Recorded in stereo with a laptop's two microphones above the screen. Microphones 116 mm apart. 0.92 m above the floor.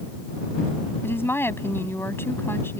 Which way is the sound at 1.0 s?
20° left (ahead or behind).